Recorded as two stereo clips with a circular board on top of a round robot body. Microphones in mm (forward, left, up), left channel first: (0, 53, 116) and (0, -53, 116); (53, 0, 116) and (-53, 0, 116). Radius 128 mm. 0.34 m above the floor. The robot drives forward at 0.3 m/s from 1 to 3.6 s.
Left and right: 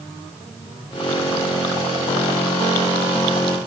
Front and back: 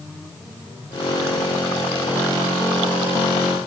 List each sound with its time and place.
Only background noise.